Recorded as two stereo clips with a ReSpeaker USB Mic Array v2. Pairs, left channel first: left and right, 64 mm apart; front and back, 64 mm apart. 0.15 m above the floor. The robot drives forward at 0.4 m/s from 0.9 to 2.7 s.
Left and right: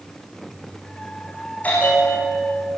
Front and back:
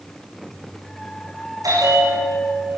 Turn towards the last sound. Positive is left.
turn(degrees=160)